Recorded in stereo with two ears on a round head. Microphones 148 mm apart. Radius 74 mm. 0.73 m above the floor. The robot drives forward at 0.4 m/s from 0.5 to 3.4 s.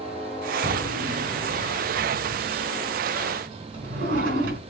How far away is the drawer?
About 4 m.